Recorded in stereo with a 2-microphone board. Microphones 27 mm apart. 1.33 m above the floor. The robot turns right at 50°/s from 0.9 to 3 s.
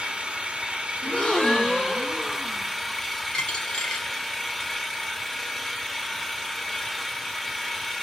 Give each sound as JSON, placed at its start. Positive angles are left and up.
{"t": 0.0, "sound": "an engine running", "azimuth_deg": -90, "distance_m": 1.0}
{"t": 1.0, "sound": "a gasp", "azimuth_deg": 110, "distance_m": 1.0}
{"t": 3.3, "sound": "a dropped coin", "side_deg": 40, "distance_m": 1.1}